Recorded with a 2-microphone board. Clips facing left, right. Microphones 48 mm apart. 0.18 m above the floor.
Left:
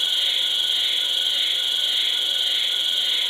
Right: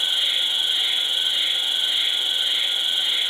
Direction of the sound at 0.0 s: 20° right (ahead or behind).